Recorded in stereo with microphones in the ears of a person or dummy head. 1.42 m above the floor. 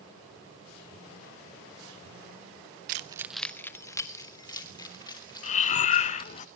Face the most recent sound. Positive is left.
turn(degrees=40)  # may be behind; listen again after turning